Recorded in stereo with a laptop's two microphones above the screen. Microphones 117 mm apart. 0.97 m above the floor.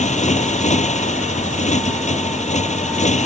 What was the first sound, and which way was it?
A motorcycle, 85° left.